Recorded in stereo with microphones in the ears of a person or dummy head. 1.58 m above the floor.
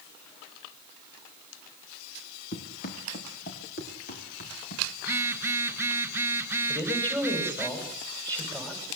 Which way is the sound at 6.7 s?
10° left (ahead or behind).